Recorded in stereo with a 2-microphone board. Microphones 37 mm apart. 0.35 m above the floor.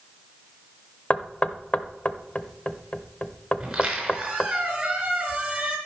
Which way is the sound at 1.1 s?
35° left (ahead or behind).